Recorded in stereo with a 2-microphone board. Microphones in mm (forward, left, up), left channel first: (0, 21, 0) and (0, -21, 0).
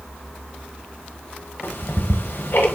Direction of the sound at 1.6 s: 60° left (ahead or behind).